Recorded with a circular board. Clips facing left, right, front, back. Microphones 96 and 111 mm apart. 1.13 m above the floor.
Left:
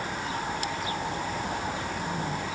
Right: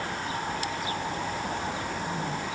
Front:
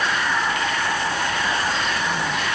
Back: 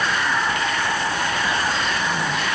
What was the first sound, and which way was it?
Only background noise.